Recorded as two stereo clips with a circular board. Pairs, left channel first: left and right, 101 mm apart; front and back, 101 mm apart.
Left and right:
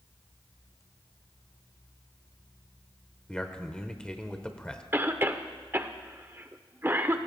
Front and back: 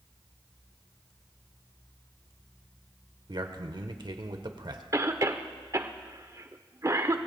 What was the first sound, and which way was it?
A man speaking, 170° left.